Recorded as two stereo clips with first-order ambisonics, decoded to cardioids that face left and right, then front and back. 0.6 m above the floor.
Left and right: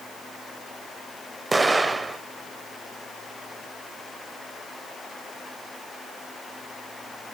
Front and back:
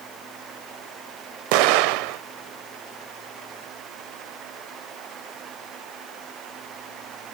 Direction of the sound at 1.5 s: 170° right.